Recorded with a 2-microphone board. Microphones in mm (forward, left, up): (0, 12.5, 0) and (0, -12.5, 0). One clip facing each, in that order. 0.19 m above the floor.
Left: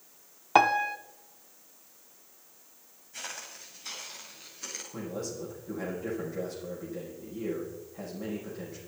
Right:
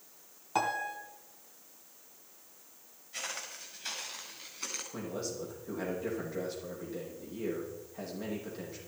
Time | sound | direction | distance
0.6 | a piano | 45° left (ahead or behind) | 0.7 m
3.1 | footsteps | 45° right (ahead or behind) | 9.5 m
4.9 | a man speaking | 25° right (ahead or behind) | 9 m